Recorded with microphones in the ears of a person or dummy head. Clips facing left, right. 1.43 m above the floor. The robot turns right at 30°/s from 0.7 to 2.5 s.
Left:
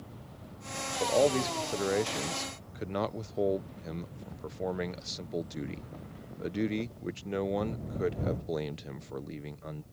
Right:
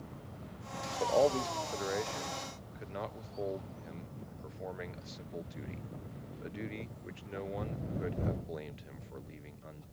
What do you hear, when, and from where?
1.0 s a man speaking: 15° left (ahead or behind); by 9.8 s 55° left (ahead or behind)